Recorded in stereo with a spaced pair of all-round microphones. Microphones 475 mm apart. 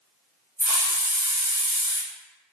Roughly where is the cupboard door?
No cupboard door in this recording.